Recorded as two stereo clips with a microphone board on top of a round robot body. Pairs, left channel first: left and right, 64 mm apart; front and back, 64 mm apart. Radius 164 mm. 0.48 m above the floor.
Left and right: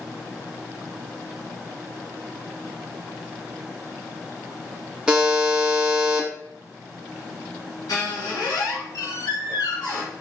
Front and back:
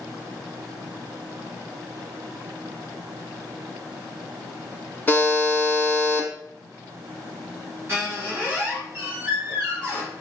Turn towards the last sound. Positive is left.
turn(degrees=125)